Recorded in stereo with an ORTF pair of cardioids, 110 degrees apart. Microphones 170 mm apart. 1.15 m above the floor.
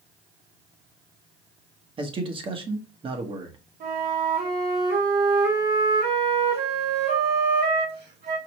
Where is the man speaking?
30° right, 1.2 m.